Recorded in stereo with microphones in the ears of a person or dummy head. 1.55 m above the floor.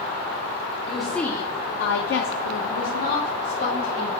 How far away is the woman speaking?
About 1.1 m.